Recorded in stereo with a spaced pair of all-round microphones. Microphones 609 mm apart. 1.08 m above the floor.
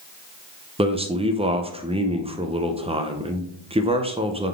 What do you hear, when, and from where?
0.8 s a man speaking: 10° right (ahead or behind), 0.6 m